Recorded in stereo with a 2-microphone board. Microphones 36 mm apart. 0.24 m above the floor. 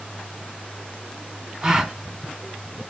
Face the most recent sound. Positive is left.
turn(degrees=-20)  # may be behind; listen again after turning